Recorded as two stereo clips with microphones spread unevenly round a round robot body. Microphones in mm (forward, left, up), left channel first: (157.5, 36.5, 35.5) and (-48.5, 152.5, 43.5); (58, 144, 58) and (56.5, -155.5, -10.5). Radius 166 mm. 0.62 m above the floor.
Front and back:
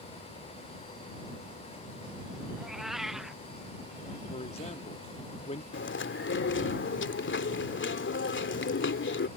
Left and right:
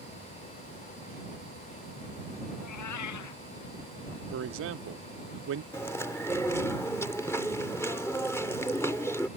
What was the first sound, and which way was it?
A cat meowing, 60° left.